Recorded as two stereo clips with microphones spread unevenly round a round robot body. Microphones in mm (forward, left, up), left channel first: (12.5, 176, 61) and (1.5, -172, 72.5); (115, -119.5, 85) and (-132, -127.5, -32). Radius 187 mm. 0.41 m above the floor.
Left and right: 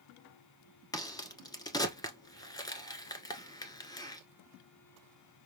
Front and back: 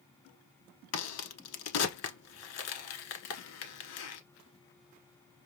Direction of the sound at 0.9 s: 10° left.